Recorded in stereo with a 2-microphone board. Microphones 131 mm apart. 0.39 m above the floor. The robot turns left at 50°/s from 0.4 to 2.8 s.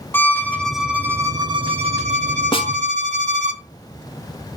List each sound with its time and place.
0.1 s a violin: 15° left, 3 m; by 3.5 s 105° right, 3 m
2.5 s a snare drum: 45° left (ahead or behind), 0.7 m; by 2.7 s 35° left (ahead or behind), 0.7 m